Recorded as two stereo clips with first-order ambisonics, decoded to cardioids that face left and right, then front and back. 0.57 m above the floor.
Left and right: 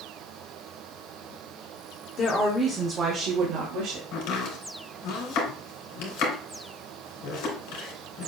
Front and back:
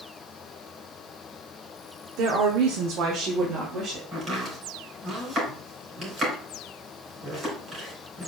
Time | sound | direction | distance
2.2 | a woman speaking | 150° left | 1.4 m
4.1 | chopping | 110° left | 3.5 m